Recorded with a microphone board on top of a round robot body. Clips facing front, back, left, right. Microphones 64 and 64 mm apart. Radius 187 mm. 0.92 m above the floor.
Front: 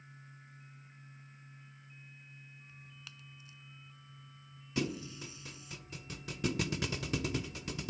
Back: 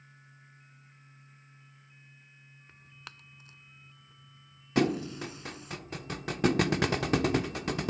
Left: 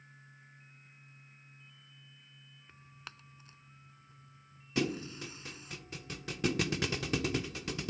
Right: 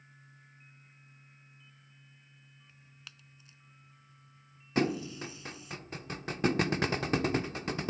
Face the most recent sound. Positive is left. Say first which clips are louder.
# back 9 dB, right 4 dB
turn(degrees=-140)